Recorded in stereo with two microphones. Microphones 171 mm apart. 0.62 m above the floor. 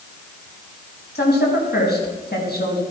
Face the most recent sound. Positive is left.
turn(degrees=65)  # may be behind; listen again after turning